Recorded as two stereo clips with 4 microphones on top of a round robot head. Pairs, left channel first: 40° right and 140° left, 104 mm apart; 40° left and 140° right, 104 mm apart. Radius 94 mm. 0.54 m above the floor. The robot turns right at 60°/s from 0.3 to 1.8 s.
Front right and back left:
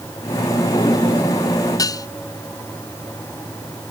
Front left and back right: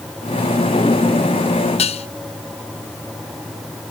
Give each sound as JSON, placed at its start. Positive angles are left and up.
{"t": 1.8, "sound": "dishes clattering", "azimuth_deg": 15}